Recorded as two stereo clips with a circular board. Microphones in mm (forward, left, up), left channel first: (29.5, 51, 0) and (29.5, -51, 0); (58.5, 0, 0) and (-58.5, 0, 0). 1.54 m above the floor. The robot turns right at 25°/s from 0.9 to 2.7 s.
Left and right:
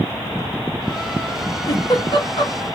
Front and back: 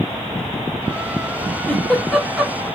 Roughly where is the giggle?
Left.